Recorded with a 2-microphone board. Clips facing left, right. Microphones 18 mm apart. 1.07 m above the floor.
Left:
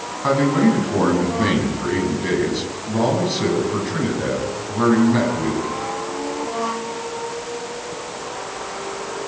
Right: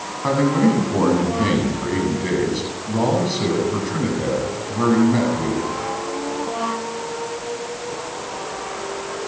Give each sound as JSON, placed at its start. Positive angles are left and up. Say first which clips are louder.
{"t": 0.2, "sound": "a man speaking", "louder": "left 1 dB", "side_deg": 0, "distance_m": 8.5}